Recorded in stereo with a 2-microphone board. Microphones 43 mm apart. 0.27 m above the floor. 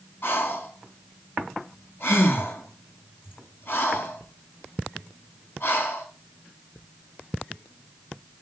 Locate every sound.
0.2 s breathing: 60° left (ahead or behind), 2.5 m